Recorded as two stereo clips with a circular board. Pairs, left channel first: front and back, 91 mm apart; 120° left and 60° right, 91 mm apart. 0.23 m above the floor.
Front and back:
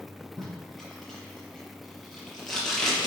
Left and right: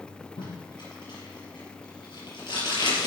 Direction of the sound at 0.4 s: 90° left.